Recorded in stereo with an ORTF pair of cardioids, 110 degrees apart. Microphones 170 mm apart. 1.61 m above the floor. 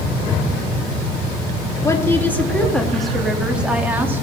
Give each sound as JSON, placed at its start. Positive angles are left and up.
{"t": 1.8, "sound": "a woman speaking", "azimuth_deg": 20, "distance_m": 2.5}